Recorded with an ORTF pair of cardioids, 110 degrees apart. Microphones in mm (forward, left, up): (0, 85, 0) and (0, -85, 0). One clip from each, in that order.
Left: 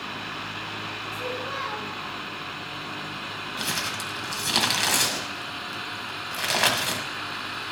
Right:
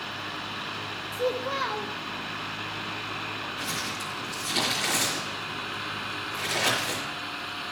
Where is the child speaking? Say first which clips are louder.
Right 5 dB; 35° right, 1.5 m.